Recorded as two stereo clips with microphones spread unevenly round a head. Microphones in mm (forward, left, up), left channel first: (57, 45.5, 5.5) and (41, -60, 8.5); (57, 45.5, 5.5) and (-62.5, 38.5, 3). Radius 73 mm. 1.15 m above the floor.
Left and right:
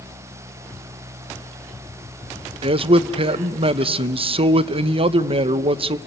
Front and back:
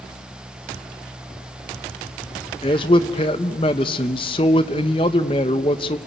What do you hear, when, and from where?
2.6 s a man speaking: 60° right, 0.8 m